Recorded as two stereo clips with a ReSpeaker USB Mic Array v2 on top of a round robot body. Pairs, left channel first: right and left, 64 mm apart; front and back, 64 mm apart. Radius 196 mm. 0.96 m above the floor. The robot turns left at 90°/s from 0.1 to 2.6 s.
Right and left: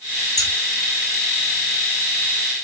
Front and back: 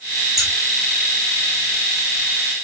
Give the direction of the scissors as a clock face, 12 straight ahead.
3 o'clock.